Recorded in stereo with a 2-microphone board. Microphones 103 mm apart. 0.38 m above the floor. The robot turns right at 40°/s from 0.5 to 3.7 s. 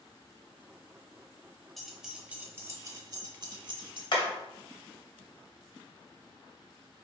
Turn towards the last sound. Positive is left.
turn(degrees=55)  # may be behind; listen again after turning